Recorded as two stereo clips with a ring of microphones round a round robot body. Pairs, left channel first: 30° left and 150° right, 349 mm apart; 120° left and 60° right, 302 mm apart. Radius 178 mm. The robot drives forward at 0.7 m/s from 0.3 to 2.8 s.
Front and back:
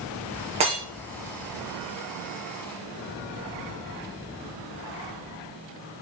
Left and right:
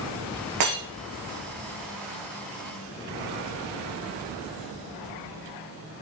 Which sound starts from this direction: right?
Breaking glass, at 0.6 s.